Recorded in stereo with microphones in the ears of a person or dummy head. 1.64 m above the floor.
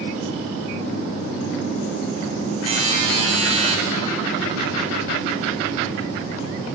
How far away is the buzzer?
About 1.5 m.